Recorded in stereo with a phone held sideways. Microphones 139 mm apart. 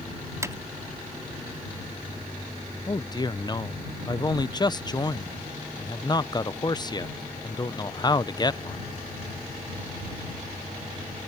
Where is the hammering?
20° right (ahead or behind).